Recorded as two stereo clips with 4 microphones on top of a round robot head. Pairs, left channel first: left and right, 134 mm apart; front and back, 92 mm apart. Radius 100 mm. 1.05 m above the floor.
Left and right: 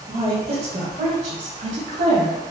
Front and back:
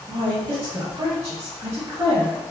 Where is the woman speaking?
140° right, 1.4 m; by 2.4 s 115° right, 2.5 m.